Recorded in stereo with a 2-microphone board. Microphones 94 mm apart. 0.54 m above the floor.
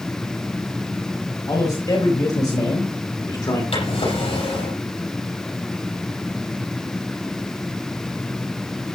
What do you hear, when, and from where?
1.5 s a man speaking: 40° left (ahead or behind), 4 m; by 3.6 s 45° left (ahead or behind), 2 m
3.7 s a drawer: 80° left, 6.5 m